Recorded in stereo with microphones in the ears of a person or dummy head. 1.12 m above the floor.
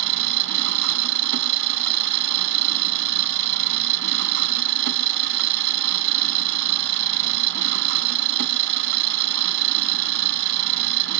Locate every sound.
0.0 s an engine running: 65° right (ahead or behind)